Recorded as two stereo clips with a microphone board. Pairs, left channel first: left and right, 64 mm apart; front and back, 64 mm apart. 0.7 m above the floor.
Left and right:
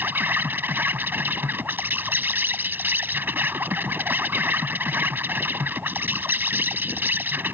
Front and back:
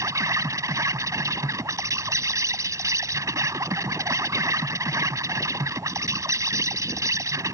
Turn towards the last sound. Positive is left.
turn(degrees=-145)